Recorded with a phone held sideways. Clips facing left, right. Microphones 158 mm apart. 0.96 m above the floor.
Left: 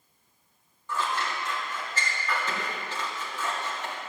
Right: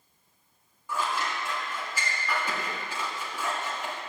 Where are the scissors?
10° right (ahead or behind), 2.5 m.